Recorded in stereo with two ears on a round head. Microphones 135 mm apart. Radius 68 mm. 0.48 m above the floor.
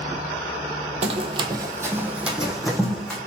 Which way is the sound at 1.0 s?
45° right (ahead or behind).